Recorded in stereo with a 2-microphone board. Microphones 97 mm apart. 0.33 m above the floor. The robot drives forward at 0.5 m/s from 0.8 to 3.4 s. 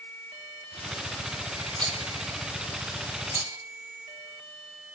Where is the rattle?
50° right (ahead or behind), 0.8 m; by 3.6 s 35° right (ahead or behind), 1.0 m.